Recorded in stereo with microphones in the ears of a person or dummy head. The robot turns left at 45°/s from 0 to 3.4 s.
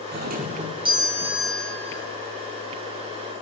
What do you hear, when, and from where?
0.1 s a doorbell: 120° right, 1.0 m; by 2.0 s 155° left, 1.0 m